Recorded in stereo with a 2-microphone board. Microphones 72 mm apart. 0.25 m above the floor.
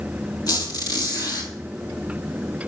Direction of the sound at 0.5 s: 60° left (ahead or behind).